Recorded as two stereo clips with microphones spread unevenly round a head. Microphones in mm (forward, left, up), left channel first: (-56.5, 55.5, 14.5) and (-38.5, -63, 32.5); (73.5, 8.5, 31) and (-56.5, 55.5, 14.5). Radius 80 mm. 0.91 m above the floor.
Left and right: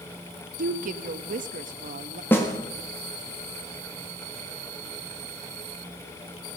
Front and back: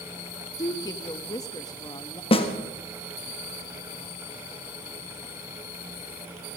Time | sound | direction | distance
0.6 | a woman speaking | 90° right | 1.0 m
2.3 | a snare drum | 30° left | 1.8 m